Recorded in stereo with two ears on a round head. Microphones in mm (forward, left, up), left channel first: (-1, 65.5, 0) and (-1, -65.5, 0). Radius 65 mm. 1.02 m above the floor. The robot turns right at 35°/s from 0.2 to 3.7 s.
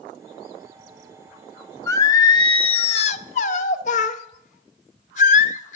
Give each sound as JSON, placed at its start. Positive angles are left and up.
{"t": 1.9, "sound": "singing", "azimuth_deg": 25, "distance_m": 0.8}